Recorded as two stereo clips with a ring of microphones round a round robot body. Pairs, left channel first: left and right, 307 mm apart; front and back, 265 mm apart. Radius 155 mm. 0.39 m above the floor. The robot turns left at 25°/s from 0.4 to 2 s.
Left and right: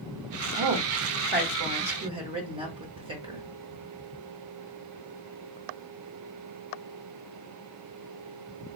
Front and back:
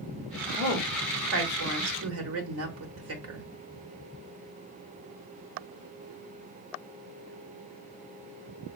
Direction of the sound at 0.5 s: 125° right.